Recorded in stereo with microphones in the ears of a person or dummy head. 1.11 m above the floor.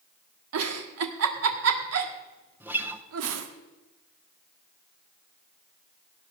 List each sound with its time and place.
0.5 s a giggle: 80° right, 1.4 m
2.6 s a guitar: 10° right (ahead or behind), 0.8 m